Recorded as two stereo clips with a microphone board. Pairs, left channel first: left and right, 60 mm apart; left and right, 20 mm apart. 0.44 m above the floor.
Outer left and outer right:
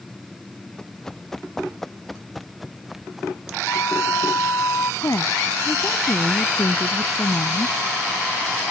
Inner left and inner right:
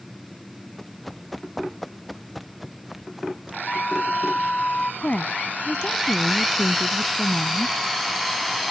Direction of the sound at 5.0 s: 60° left (ahead or behind).